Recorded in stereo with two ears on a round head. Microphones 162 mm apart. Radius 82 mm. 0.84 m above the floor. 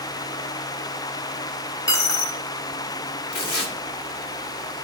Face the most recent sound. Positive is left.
turn(degrees=60)  # may be behind; listen again after turning